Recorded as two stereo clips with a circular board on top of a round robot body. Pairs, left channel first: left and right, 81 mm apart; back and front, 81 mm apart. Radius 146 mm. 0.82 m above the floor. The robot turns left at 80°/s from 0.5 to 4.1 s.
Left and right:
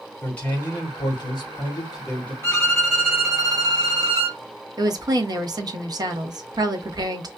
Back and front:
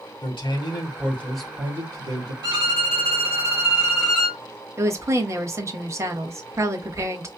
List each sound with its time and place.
0.2 s a man speaking: 160° left, 3 m; by 2.3 s 15° left, 3 m
2.4 s a violin: 30° left, 3.5 m; by 4.4 s 105° right, 3.5 m
4.8 s a woman speaking: 55° right, 1.3 m